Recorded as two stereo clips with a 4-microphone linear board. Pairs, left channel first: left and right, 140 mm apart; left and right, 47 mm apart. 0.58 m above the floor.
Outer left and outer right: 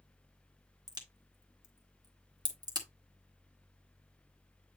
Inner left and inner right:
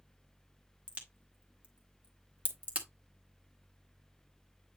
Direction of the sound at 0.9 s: 30° right (ahead or behind).